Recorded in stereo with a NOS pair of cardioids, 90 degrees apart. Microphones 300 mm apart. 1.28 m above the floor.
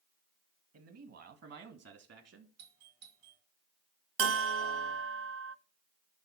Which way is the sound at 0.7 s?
55° right.